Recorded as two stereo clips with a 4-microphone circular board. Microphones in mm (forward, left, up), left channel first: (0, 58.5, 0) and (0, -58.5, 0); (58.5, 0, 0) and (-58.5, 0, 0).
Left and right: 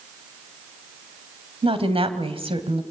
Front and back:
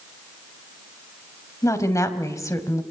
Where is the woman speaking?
60° right, 2 m.